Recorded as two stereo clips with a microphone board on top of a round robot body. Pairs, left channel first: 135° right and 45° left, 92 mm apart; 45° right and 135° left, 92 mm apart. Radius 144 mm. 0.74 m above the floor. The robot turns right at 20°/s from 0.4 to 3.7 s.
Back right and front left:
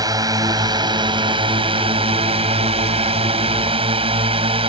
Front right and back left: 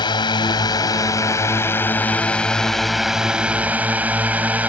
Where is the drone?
5° right; by 4.7 s 60° left.